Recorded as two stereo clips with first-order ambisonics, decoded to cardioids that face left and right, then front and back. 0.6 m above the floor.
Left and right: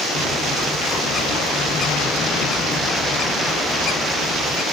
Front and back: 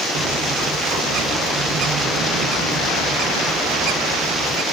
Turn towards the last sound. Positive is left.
turn(degrees=140)